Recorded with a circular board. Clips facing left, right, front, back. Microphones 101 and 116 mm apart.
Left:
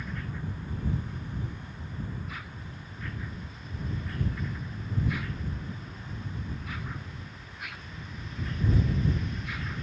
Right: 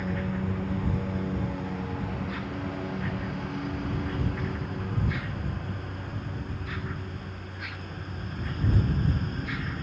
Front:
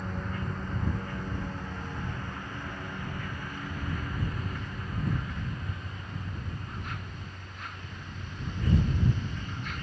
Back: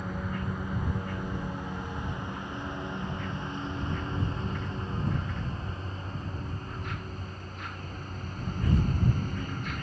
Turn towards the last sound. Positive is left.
turn(degrees=-135)